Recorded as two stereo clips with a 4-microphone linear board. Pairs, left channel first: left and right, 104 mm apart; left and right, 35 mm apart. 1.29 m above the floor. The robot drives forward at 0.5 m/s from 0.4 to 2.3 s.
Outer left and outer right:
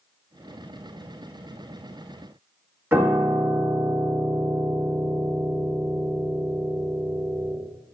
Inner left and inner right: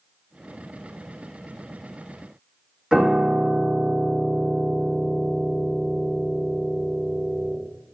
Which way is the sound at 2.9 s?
20° right (ahead or behind).